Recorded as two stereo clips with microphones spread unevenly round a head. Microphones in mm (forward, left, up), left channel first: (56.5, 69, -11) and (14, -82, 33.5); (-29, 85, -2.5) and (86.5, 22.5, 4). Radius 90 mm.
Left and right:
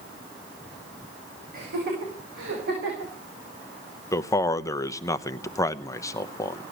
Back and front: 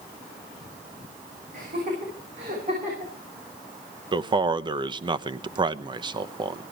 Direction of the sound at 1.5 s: 80° right.